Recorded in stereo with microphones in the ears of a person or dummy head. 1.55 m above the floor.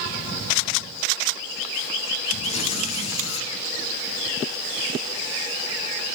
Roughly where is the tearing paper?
Left.